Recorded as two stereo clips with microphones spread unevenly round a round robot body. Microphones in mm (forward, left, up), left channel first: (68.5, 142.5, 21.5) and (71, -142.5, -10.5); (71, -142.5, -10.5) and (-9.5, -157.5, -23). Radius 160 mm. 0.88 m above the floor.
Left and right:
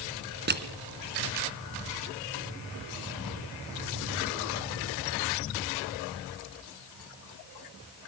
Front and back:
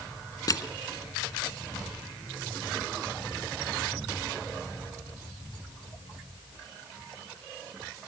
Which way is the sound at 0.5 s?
30° right.